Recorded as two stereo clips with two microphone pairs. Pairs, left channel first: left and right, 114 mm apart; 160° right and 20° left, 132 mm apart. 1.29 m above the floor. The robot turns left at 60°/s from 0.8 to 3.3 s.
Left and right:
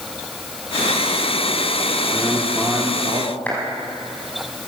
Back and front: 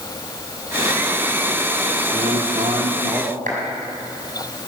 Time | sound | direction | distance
2.1 | a man speaking | 20° left | 2.5 m
3.5 | a clap | 15° left | 6.5 m